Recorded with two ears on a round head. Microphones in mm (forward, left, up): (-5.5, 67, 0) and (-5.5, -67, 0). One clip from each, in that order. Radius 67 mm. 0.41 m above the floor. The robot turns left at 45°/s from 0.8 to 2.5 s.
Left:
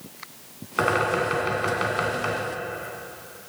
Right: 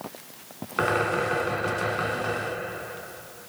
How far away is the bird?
About 2.5 m.